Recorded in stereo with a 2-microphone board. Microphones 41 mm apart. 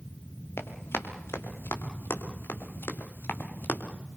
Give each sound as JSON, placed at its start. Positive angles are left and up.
{"t": 0.6, "sound": "running footsteps", "side_deg": 90, "distance_m": 4.5}